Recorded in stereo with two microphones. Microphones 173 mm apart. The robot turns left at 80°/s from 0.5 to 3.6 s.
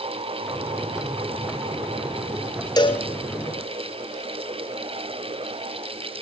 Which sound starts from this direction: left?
A cowbell, at 2.8 s.